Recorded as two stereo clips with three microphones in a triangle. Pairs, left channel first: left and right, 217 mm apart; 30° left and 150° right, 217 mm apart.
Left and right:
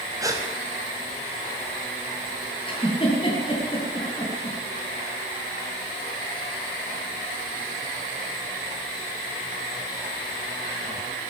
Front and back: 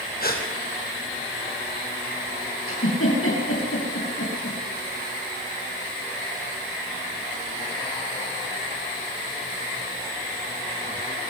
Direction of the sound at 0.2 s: 15° right.